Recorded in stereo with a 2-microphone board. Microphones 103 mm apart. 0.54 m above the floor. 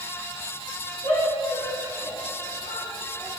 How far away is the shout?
About 6 m.